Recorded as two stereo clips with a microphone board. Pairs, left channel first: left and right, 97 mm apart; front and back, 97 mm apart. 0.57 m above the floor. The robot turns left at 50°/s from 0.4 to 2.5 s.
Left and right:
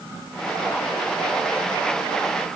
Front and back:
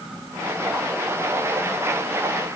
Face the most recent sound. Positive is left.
No sound to turn to.